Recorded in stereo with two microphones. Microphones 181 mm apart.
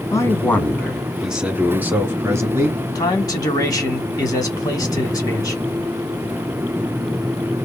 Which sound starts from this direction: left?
A man speaking, at 3.0 s.